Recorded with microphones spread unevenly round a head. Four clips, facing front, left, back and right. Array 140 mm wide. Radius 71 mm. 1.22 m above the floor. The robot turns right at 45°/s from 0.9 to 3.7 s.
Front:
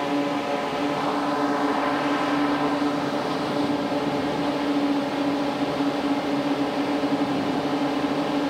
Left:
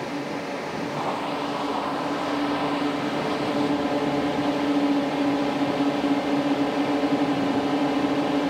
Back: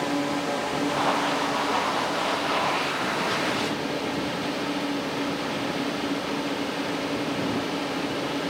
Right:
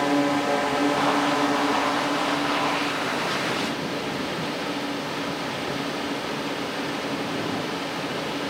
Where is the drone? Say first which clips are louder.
Right 8 dB, front 2 dB; 65° right; by 8.5 s 60° left.